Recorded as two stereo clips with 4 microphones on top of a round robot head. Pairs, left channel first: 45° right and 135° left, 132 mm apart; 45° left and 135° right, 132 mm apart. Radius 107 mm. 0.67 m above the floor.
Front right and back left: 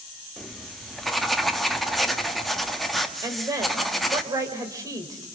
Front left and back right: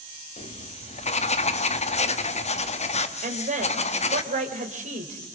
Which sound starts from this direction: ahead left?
Writing, at 0.4 s.